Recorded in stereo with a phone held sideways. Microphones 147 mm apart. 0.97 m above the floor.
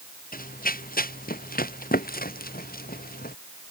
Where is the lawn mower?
No lawn mower in this recording.